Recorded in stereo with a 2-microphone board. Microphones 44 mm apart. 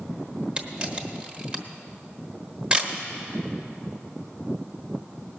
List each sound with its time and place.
0.6 s a camera shutter: 20° right (ahead or behind), 1.1 m